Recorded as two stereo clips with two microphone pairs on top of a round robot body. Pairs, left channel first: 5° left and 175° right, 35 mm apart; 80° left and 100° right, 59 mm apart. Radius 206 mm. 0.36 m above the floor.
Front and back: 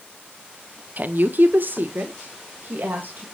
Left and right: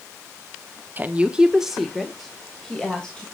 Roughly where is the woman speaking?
Behind.